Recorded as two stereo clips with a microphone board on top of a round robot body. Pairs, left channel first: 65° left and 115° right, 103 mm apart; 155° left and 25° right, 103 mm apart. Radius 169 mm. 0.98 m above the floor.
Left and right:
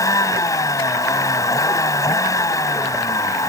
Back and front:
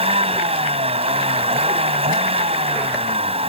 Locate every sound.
0.0 s a vehicle: 5° left